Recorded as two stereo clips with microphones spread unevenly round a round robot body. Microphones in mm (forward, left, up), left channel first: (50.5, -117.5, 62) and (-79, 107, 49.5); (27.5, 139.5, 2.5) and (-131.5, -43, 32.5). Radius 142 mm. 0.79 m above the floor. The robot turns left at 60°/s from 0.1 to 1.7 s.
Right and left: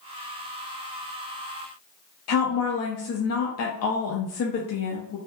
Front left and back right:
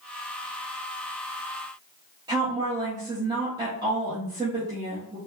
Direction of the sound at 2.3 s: 50° right.